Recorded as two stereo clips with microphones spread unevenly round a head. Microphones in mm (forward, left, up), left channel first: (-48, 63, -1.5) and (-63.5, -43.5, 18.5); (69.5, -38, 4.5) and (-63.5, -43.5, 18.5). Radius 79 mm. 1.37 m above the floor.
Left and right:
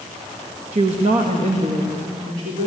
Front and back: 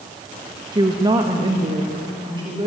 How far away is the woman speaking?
About 1.5 m.